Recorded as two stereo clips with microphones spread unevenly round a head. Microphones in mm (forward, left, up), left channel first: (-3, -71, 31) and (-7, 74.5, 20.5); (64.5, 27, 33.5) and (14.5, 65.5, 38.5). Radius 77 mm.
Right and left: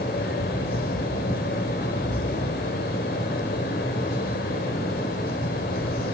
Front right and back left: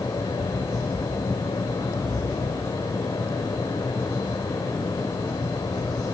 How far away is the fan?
About 2 m.